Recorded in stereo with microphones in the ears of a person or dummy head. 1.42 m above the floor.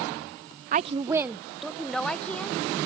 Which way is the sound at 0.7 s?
45° right (ahead or behind).